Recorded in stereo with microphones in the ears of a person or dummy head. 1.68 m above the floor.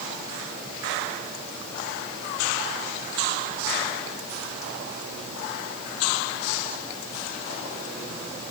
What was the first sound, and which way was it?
Only background noise.